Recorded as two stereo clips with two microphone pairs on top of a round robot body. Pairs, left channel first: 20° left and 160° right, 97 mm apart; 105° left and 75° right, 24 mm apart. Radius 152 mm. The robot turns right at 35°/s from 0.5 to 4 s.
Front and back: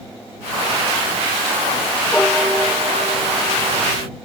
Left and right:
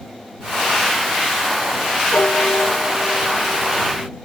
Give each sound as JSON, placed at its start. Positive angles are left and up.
{"t": 2.1, "sound": "a piano", "azimuth_deg": 105}